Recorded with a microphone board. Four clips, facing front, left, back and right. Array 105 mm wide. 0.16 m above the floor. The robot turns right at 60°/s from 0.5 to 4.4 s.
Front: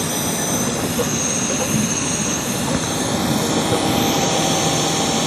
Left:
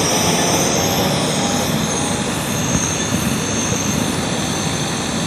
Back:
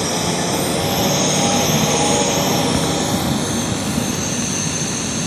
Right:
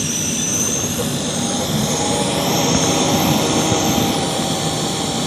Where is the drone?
110° left; by 5.3 s 25° right.